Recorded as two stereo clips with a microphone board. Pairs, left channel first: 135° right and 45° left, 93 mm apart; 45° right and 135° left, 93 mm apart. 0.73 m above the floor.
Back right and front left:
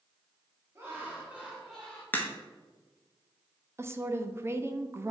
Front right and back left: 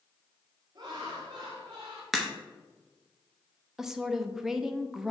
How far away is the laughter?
About 1.6 m.